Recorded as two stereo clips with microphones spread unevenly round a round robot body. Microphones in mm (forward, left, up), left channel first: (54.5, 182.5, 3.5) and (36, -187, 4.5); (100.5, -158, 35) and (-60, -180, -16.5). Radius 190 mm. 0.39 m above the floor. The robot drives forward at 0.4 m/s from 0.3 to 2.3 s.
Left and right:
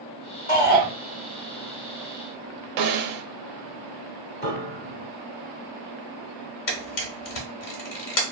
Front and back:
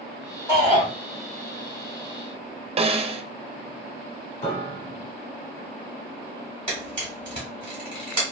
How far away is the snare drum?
About 0.6 m.